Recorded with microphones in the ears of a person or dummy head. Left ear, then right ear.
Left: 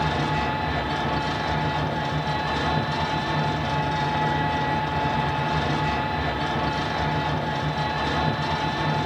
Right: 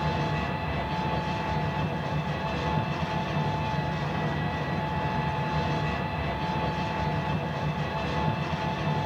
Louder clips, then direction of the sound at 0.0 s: Left 5 dB; 30° left (ahead or behind).